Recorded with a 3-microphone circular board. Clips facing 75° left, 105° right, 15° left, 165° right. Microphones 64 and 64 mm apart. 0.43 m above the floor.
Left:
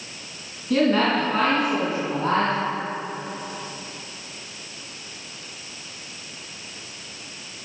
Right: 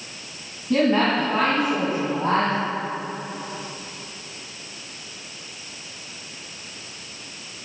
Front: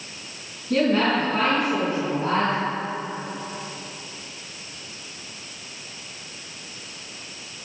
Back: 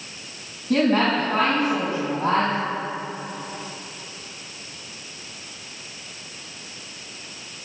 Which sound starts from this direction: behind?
A woman speaking, at 0.7 s.